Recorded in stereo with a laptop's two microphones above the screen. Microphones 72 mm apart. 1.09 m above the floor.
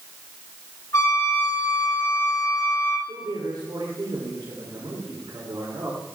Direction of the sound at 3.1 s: 80° right.